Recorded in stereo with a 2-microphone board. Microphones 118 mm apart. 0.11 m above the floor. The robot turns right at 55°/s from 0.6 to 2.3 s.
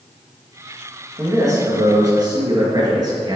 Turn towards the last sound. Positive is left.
turn(degrees=-80)